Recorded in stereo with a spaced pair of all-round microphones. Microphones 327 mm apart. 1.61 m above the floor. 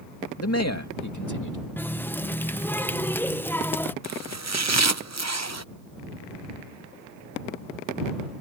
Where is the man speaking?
45° left (ahead or behind); by 1.6 s 70° left (ahead or behind).